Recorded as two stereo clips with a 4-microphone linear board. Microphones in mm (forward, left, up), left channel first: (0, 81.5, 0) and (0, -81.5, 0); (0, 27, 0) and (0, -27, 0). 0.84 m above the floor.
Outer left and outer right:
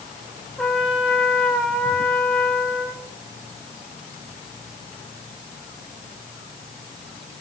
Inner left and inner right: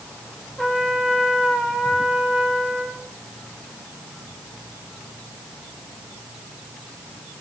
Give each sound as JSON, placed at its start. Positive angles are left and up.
{"t": 0.6, "sound": "a trumpet", "side_deg": 5, "distance_m": 2.5}